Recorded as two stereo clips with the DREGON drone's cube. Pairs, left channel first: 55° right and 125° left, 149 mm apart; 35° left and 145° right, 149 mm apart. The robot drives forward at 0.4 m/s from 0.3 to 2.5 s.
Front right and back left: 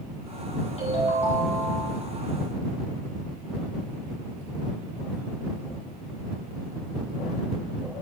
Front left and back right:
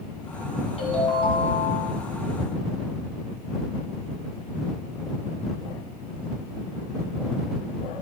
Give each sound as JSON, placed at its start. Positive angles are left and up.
{"t": 0.8, "sound": "a ringtone", "azimuth_deg": -15, "distance_m": 2.5}